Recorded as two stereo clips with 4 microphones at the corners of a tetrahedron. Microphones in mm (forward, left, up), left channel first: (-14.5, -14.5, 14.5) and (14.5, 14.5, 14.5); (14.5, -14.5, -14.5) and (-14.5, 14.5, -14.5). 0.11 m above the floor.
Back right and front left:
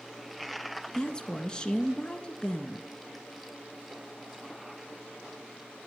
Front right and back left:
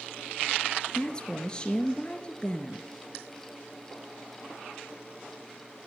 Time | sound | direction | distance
0.9 | a woman speaking | 85° right | 1.3 m